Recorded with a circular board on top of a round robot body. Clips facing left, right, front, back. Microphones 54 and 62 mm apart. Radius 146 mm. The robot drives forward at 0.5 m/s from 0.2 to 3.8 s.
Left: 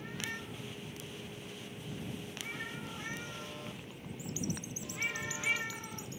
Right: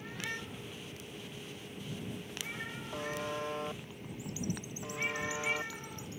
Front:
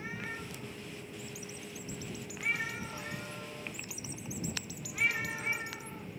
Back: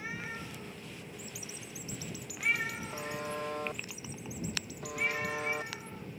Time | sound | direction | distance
2.9 | a buzzer | 115° right | ?